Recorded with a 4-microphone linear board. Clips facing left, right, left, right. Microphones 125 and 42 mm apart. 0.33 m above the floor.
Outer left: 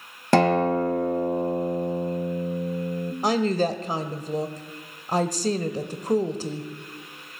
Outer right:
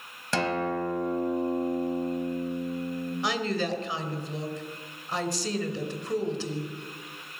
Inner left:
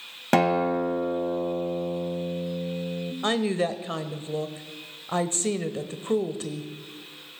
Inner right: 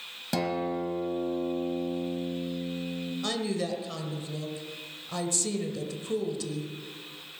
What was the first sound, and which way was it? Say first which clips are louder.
A guitar: outer left 9 dB, inner left 8 dB; 55° left (ahead or behind).